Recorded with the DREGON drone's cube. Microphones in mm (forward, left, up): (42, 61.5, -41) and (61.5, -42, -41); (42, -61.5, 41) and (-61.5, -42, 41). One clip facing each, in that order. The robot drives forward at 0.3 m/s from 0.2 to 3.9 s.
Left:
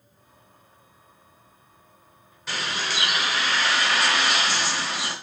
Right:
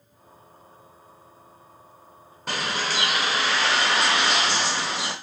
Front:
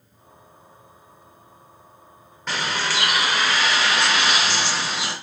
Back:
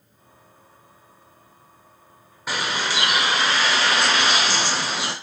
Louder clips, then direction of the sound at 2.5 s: Right 2 dB, even; 110° right.